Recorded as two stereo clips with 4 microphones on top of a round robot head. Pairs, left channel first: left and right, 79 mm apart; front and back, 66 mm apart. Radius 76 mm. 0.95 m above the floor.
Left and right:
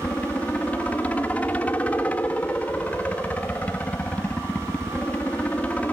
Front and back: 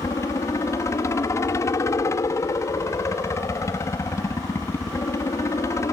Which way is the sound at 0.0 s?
20° left.